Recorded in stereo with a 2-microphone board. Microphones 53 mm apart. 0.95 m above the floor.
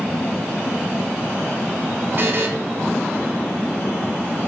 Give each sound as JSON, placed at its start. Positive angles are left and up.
{"t": 2.2, "sound": "a buzzer", "side_deg": -45, "distance_m": 0.7}